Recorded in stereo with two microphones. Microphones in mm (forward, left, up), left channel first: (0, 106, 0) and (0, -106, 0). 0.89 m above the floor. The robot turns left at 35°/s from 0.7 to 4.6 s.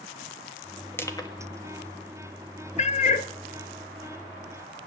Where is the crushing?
10° left (ahead or behind), 1.4 m; by 1.4 s 20° left (ahead or behind), 1.4 m.